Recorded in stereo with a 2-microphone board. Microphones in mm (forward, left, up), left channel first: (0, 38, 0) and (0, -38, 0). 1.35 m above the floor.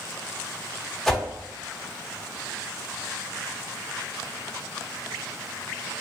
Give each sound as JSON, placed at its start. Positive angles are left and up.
{"t": 1.1, "sound": "a whoosh", "side_deg": 5, "distance_m": 1.2}